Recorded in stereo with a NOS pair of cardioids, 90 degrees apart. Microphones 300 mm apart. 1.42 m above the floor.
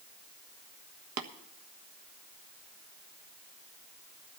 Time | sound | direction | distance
1.2 | tapping | 60° right | 1.5 m